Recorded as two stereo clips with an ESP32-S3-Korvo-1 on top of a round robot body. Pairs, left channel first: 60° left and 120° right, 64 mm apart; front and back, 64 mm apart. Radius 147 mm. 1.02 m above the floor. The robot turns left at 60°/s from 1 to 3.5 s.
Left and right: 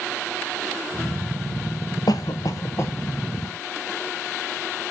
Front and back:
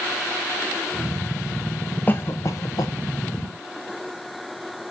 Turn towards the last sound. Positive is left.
turn(degrees=-25)